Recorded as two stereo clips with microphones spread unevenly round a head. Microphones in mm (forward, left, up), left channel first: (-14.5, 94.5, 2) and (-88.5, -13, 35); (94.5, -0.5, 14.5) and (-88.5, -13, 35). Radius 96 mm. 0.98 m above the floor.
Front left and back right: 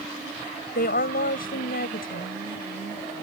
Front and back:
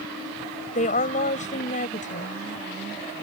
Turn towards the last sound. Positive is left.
turn(degrees=60)